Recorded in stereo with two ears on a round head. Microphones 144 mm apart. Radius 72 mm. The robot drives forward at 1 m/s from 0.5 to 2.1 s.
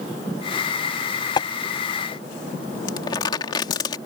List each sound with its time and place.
1.4 s tapping: 30° left (ahead or behind)
2.9 s crumpling: 25° left (ahead or behind)